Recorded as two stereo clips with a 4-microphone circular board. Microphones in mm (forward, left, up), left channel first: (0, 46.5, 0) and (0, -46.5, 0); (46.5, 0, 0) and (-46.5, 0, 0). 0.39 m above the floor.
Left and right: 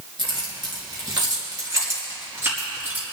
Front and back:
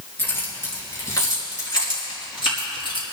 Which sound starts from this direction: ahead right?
Keys jangling, at 0.2 s.